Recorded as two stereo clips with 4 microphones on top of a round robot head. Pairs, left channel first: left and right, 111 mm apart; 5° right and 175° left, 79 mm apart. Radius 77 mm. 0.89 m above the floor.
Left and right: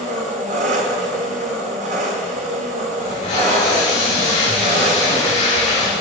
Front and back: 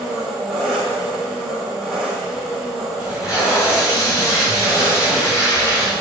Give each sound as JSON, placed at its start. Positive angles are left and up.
{"t": 0.0, "sound": "an engine running", "azimuth_deg": -100, "distance_m": 1.4}
{"t": 3.0, "sound": "tape being pulled", "azimuth_deg": 40, "distance_m": 4.5}